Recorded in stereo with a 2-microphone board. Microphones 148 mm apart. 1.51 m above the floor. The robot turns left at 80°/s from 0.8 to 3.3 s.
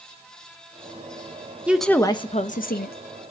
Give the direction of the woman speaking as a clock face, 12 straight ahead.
6 o'clock.